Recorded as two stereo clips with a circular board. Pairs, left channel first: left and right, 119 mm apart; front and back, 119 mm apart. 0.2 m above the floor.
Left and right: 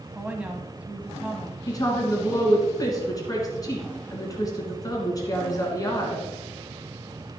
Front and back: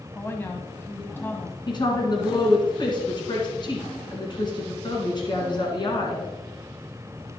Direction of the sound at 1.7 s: 40° left.